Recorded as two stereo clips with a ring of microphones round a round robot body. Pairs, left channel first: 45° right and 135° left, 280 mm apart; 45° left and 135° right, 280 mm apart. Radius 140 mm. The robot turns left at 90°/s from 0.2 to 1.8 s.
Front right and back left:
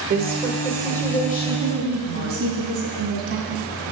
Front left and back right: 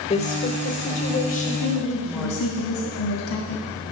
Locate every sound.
0.1 s a woman speaking: 100° left, 1.3 m; by 2.5 s 40° right, 1.3 m
1.5 s a woman speaking: 115° left, 2.5 m; by 3.7 s 85° left, 2.5 m